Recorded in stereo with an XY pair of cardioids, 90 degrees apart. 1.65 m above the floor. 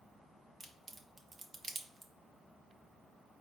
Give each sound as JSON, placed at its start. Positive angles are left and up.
{"t": 0.6, "sound": "a crack", "azimuth_deg": -45, "distance_m": 0.8}